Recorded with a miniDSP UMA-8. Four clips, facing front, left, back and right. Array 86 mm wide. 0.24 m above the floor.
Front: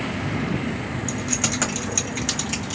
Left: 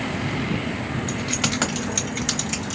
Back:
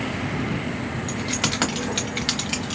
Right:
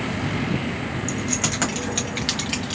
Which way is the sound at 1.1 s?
130° left.